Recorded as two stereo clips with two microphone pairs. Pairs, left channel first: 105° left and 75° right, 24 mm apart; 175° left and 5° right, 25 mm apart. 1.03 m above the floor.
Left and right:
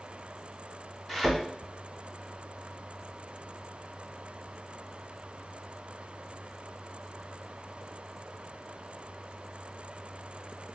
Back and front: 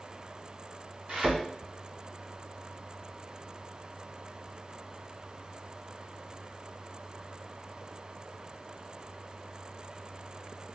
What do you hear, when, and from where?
1.1 s a thud: 15° left, 1.4 m